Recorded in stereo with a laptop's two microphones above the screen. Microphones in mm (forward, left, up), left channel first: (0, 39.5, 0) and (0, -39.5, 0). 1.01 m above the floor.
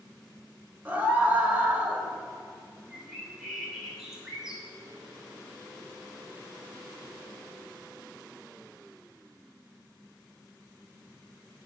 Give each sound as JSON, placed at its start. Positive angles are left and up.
{"t": 0.8, "sound": "a scream", "side_deg": -20, "distance_m": 4.5}
{"t": 2.9, "sound": "a bird", "side_deg": -10, "distance_m": 3.0}